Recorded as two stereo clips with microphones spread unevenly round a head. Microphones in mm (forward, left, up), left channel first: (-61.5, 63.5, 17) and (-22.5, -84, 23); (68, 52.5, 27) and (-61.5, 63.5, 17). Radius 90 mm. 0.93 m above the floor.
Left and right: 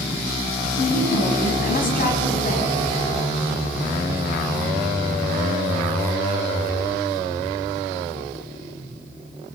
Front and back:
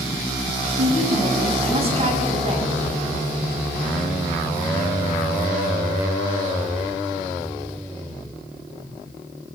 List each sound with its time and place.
0.8 s a woman speaking: 135° left, 7 m